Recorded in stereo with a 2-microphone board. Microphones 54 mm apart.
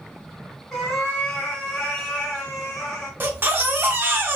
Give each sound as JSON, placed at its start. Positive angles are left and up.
{"t": 0.7, "sound": "a cat meowing", "side_deg": 5, "distance_m": 1.3}
{"t": 3.2, "sound": "a baby crying", "side_deg": -40, "distance_m": 0.7}